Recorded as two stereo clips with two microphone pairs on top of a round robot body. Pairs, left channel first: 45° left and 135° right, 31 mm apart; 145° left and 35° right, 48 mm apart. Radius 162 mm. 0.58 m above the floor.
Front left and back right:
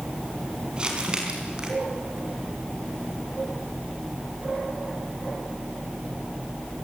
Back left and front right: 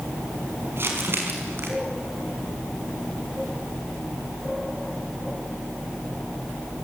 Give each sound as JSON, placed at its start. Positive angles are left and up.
{"t": 0.8, "sound": "crumpling", "azimuth_deg": -75, "distance_m": 5.0}